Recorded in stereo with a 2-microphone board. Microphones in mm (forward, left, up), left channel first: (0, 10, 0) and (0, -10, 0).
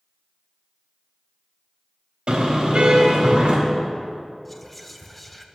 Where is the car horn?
60° right (ahead or behind), 3.5 m.